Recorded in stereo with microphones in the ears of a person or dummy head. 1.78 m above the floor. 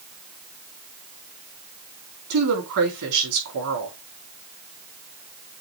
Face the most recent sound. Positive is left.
turn(degrees=-75)  # may be behind; listen again after turning